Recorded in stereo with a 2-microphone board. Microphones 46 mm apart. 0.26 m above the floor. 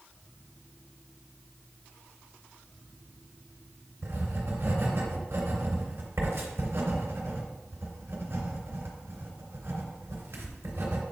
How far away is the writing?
About 2.5 m.